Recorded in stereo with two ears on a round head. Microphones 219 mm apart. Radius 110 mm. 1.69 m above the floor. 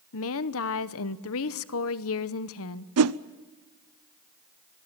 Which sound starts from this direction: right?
A whoosh, at 3.0 s.